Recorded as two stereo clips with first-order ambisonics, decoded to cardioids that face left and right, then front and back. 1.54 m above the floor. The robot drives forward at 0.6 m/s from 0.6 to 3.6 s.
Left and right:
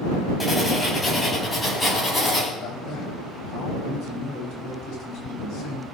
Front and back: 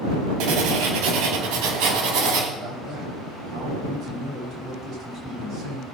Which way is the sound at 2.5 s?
130° left.